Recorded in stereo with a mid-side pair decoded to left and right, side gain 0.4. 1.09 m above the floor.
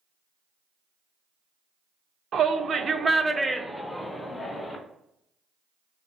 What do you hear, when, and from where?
2.3 s a shout: 65° right, 0.7 m; by 4.8 s 30° left, 1.1 m